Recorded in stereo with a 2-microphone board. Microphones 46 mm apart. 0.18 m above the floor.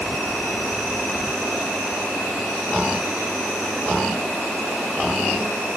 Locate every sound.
0.0 s an insect: 5° left (ahead or behind), 2 m